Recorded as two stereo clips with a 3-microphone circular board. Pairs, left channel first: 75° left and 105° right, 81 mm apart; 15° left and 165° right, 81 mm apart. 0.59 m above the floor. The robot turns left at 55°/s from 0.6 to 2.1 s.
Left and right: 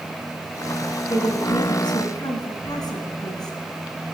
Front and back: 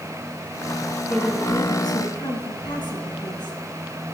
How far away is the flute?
I don't hear a flute.